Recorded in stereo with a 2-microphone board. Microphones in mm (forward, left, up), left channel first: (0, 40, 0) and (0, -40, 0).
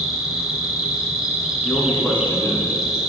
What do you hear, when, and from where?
0.0 s an insect: 5° right (ahead or behind), 1.5 m
1.6 s a man speaking: 20° left (ahead or behind), 1.9 m